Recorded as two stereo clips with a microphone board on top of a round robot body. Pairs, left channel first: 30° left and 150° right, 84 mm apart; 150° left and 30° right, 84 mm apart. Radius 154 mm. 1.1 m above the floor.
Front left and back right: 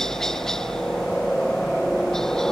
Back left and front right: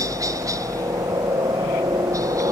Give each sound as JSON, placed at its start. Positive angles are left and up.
{"t": 0.0, "sound": "a helicopter", "azimuth_deg": -50}